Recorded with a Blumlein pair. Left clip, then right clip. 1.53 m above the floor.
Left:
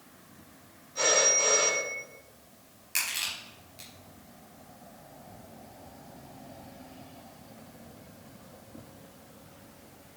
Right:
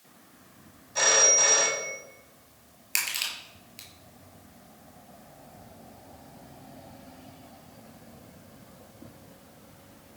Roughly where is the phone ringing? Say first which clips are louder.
Right 3 dB; ahead right.